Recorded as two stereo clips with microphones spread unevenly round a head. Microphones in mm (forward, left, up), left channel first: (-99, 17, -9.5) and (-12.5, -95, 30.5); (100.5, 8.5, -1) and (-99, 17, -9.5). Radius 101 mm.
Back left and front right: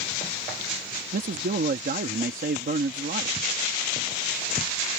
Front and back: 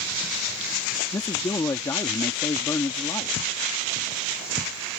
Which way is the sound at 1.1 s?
80° right.